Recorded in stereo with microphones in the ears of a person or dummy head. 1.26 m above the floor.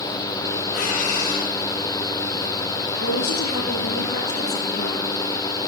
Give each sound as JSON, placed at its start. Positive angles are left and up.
{"t": 0.7, "sound": "breathing", "side_deg": 80, "distance_m": 7.5}
{"t": 3.0, "sound": "a woman speaking", "side_deg": 75, "distance_m": 10.0}